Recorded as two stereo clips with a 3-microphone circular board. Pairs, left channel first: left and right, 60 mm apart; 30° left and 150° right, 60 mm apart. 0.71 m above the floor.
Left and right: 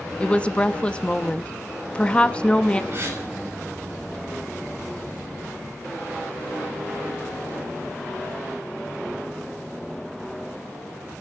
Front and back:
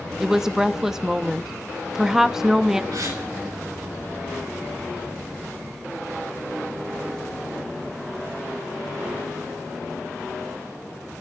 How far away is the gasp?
About 5 m.